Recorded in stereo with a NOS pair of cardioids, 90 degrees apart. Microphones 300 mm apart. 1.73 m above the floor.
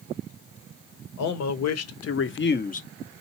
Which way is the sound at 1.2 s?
70° left.